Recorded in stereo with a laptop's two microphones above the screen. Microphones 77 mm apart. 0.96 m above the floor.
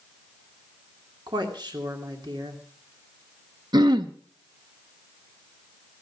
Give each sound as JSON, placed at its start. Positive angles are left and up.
{"t": 1.3, "sound": "a woman speaking", "side_deg": -80, "distance_m": 2.5}
{"t": 3.7, "sound": "throat clearing", "side_deg": -70, "distance_m": 0.9}